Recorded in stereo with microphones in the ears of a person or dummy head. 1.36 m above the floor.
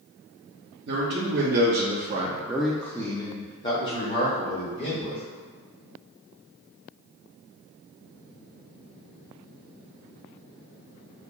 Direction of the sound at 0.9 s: 55° right (ahead or behind).